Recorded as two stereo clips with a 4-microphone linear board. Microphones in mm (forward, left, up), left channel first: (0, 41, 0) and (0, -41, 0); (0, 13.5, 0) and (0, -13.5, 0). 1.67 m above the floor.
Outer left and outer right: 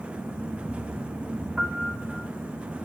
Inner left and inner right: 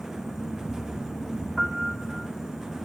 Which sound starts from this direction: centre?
A piano, at 1.6 s.